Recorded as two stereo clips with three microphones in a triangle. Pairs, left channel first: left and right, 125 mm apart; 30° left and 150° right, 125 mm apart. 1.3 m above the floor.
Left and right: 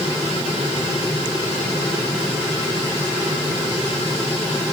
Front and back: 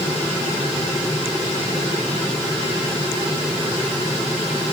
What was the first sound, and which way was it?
Only background noise.